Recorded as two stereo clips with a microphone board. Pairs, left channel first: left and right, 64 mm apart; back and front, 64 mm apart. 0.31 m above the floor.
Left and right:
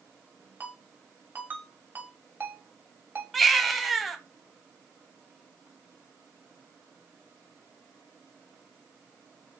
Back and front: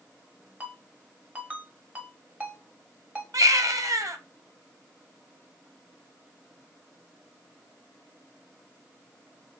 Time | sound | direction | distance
0.6 | a ringtone | 60° right | 0.9 m
3.3 | a baby crying | 5° left | 0.6 m